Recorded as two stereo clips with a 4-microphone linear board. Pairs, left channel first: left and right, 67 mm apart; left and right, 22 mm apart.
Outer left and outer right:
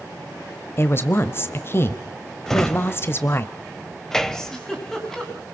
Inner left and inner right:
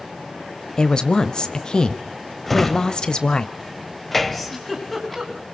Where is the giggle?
10° left (ahead or behind), 3 m.